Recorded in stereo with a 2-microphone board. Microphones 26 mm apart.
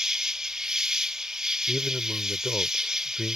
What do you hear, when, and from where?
0.0 s an insect: 25° right (ahead or behind)
1.7 s a man speaking: 35° left (ahead or behind)